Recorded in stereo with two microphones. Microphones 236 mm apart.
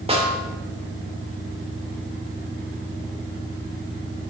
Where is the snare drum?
25° right (ahead or behind), 1.5 m.